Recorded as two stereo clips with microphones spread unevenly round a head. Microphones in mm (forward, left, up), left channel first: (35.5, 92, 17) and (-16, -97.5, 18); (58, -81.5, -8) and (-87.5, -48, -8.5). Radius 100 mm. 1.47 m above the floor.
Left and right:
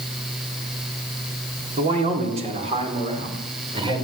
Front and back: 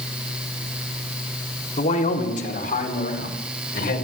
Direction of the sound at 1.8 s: 50° right.